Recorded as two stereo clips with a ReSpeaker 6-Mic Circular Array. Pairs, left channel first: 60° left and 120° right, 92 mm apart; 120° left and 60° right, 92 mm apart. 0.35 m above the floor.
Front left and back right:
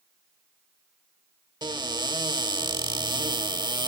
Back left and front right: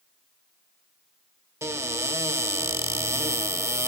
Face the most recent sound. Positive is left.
turn(degrees=-110)